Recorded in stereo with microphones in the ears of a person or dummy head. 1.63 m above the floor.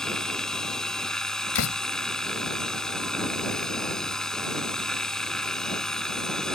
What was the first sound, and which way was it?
A machine running, 5° left (ahead or behind).